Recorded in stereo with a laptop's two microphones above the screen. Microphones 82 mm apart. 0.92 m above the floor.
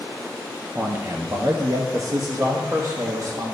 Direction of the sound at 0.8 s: 20° right (ahead or behind).